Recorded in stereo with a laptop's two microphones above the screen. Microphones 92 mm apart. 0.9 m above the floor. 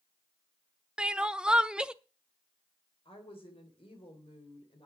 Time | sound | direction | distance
1.0 | crying | 10° right (ahead or behind) | 0.8 m
3.0 | a woman speaking | 75° left (ahead or behind) | 3.5 m